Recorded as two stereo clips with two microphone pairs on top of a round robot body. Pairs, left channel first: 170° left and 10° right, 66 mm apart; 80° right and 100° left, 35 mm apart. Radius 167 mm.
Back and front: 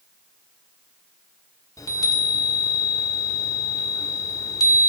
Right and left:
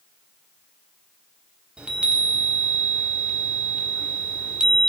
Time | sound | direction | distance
1.8 | a chime | 160° left | 2 m